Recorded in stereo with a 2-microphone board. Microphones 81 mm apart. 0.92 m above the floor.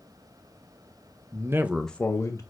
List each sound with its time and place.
1.3 s a man speaking: 45° right (ahead or behind), 0.7 m; by 2.4 s 40° left (ahead or behind), 0.8 m